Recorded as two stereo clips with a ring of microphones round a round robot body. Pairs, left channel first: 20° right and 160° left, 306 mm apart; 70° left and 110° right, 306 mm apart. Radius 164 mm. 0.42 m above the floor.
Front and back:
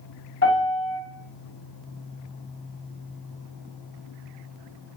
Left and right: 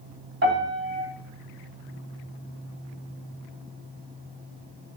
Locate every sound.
0.4 s a piano: 70° right, 1.3 m